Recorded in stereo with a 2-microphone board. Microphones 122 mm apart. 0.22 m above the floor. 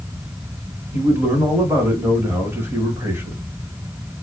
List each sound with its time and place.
0.9 s a man speaking: 20° right (ahead or behind), 1.1 m